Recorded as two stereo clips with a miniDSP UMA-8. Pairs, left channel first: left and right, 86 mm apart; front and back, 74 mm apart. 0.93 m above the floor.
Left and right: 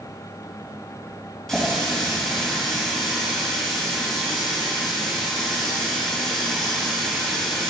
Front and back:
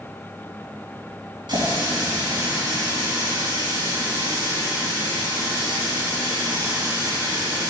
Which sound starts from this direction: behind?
A running tap, at 1.5 s.